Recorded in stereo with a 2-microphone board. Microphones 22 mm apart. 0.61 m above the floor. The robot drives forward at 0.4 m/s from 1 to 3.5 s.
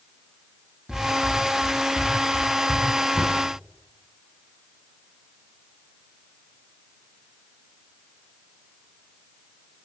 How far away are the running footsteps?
About 8 m.